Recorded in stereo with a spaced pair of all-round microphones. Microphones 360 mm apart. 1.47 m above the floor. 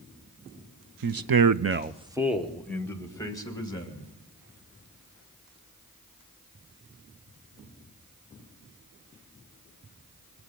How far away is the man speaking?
About 0.7 m.